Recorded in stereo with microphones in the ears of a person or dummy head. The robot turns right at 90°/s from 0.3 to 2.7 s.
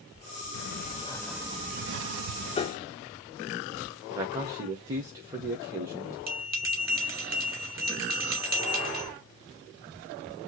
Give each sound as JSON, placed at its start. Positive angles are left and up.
{"t": 0.5, "sound": "a sliding door", "azimuth_deg": 115, "distance_m": 0.6}
{"t": 2.6, "sound": "a piano", "side_deg": 30, "distance_m": 0.5}
{"t": 4.1, "sound": "a man speaking", "side_deg": -20, "distance_m": 1.0}
{"t": 6.3, "sound": "a bell", "side_deg": -15, "distance_m": 2.0}